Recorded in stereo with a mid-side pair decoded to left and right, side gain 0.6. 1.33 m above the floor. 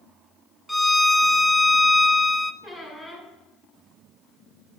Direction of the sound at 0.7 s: 5° right.